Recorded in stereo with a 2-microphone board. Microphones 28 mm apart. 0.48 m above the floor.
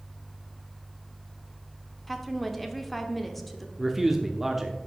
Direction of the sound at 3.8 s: 10° right (ahead or behind).